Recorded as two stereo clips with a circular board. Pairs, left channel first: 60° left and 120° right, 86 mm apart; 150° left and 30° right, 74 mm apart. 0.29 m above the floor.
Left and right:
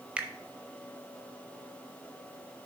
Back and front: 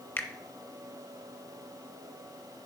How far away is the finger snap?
About 0.8 m.